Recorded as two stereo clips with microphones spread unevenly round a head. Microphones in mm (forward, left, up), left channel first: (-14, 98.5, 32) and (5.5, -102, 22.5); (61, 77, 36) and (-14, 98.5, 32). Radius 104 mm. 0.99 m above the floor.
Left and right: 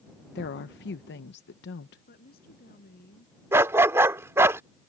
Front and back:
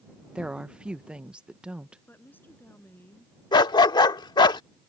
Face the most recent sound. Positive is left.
turn(degrees=-5)